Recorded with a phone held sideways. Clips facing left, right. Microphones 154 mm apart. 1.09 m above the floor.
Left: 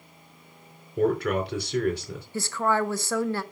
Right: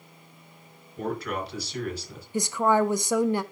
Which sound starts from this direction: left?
A man speaking, at 1.0 s.